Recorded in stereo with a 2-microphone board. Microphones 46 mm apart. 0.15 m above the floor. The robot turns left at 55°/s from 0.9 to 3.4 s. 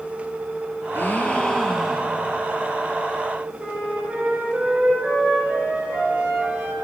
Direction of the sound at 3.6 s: 20° right (ahead or behind).